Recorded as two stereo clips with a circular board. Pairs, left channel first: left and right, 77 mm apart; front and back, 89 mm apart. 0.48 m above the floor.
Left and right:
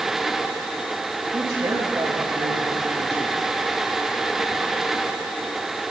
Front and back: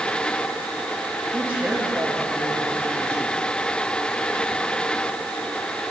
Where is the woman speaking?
105° right, 9 m.